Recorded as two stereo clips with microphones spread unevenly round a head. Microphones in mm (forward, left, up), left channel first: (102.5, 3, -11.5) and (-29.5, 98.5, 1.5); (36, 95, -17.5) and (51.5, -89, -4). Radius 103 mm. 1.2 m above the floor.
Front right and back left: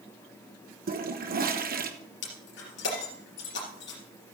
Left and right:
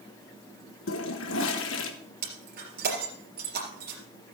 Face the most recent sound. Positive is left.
turn(degrees=-60)